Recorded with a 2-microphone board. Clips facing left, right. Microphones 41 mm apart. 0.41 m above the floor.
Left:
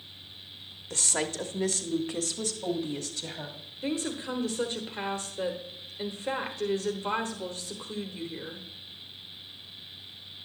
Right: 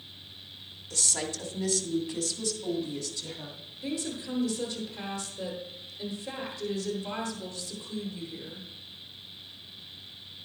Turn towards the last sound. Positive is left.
turn(degrees=45)  # may be behind; listen again after turning